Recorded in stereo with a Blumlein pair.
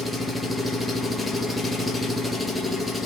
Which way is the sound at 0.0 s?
5° left.